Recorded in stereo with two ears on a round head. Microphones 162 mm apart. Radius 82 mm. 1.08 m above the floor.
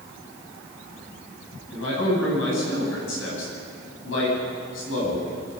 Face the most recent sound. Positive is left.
turn(degrees=80)